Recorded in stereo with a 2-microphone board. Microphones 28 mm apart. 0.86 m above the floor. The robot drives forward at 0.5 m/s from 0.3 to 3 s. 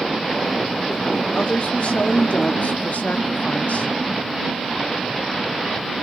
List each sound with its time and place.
1.4 s a woman speaking: 45° left (ahead or behind), 1.4 m; by 3.9 s 70° left (ahead or behind), 1.1 m